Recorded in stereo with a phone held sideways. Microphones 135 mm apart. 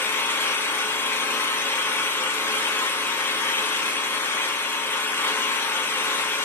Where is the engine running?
15° left (ahead or behind), 1.6 m.